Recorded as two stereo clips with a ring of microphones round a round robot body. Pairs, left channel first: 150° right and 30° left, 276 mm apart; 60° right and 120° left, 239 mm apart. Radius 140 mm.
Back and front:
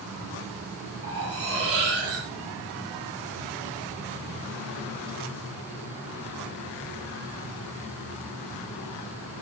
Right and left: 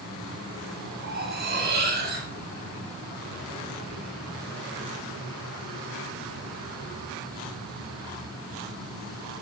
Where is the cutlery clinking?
70° left, 8.5 m.